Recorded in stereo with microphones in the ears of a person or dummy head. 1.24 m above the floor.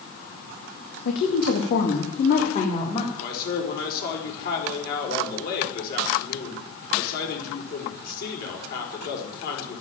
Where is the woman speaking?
60° left (ahead or behind), 2 m; by 3.1 s 35° left (ahead or behind), 3.5 m.